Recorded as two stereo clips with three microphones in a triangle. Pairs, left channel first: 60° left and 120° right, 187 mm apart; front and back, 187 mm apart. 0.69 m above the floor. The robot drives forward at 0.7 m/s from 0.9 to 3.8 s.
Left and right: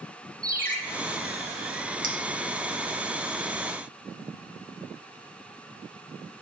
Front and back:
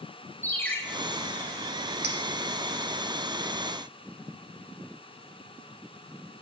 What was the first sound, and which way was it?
A ringtone, 80° right.